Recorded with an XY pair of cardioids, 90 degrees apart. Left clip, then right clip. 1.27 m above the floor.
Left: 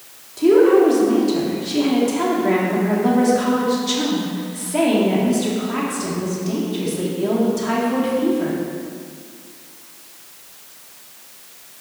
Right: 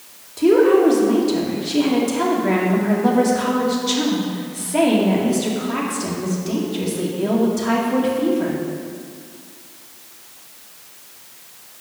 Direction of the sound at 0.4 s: 15° right.